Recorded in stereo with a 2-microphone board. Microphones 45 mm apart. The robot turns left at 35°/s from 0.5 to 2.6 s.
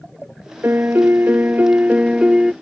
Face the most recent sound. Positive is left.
turn(degrees=-165)